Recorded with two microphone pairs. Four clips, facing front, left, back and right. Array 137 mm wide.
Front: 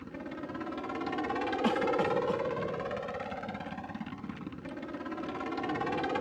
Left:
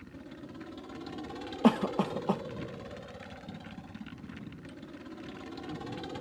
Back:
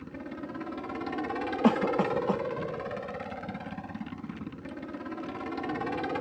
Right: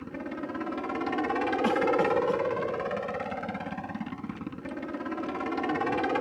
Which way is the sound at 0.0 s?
85° right.